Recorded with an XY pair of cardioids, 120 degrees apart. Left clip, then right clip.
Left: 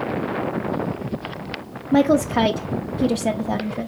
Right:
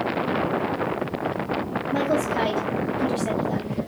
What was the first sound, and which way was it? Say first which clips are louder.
A woman speaking: left 6 dB; 50° left.